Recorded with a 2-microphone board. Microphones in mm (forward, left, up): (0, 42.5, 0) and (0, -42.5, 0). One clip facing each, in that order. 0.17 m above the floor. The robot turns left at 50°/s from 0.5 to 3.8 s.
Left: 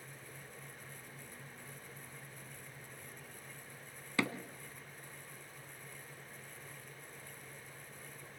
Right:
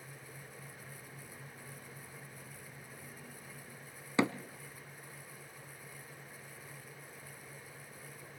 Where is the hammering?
25° right (ahead or behind), 0.8 m.